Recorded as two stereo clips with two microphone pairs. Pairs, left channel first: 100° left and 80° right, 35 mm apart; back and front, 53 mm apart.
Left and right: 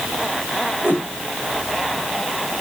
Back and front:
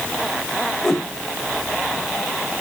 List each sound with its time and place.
0.8 s a whoosh: 100° right, 3.5 m